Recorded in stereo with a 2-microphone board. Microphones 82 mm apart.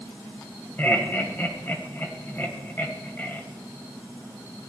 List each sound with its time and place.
0.8 s laughter: 25° left (ahead or behind), 1.7 m